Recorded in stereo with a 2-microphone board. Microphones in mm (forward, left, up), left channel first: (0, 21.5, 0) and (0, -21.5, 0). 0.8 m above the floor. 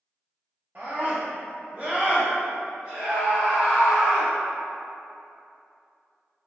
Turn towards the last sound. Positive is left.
turn(degrees=10)  # may be behind; listen again after turning